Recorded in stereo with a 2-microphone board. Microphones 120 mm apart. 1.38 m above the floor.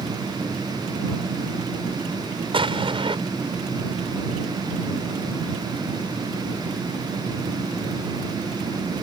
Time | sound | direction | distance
2.5 | an explosion | 50° right (ahead or behind) | ?